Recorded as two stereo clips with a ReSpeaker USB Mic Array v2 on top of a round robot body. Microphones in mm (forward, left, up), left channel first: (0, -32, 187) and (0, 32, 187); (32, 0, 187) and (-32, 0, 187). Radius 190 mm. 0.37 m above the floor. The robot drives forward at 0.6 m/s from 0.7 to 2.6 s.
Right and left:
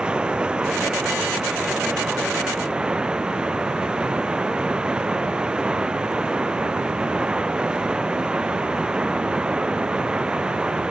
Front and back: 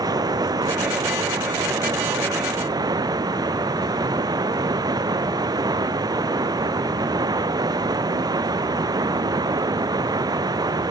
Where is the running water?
165° left.